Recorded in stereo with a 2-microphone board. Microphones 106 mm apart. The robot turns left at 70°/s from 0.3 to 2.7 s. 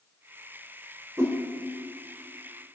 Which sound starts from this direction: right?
A whoosh, at 1.2 s.